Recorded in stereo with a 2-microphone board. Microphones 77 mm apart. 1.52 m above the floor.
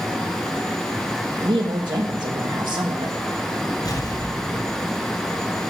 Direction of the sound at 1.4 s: 75° right (ahead or behind).